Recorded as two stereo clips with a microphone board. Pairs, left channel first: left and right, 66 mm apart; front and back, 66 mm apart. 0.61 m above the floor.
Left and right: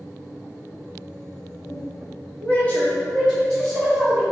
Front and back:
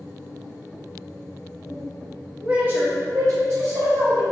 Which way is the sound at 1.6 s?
40° left.